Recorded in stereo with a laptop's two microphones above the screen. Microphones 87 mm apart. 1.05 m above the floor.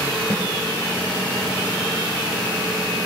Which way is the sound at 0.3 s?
30° right (ahead or behind).